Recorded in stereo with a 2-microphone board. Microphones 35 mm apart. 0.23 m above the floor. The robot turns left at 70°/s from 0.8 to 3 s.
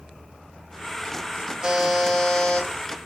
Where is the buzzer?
155° right, 2 m; by 2.7 s 130° left, 2 m.